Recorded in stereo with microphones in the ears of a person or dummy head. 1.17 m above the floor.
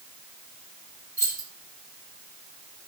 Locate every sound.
1.2 s keys jangling: 15° left (ahead or behind), 2 m